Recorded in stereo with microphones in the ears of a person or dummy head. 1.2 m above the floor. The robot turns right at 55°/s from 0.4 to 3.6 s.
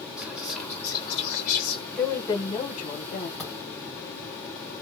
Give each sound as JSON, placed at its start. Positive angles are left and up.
{"t": 0.2, "sound": "whispering", "azimuth_deg": 0, "distance_m": 1.7}
{"t": 1.9, "sound": "a woman speaking", "azimuth_deg": 5, "distance_m": 1.0}
{"t": 3.4, "sound": "a thud", "side_deg": 5, "distance_m": 1.2}